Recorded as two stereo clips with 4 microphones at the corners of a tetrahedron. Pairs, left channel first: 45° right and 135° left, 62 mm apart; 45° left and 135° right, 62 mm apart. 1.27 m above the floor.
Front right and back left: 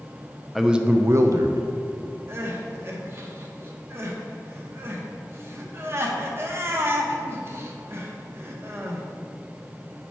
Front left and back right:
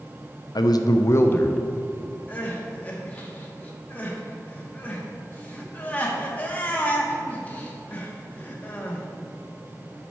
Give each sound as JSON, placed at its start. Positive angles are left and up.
{"t": 0.6, "sound": "a man speaking", "azimuth_deg": 45, "distance_m": 0.6}
{"t": 2.3, "sound": "crying", "azimuth_deg": 100, "distance_m": 0.9}